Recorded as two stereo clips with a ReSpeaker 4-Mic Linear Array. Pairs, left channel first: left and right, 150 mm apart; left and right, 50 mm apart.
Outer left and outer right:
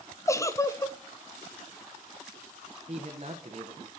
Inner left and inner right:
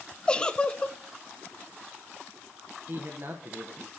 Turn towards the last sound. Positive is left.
turn(degrees=-45)  # may be behind; listen again after turning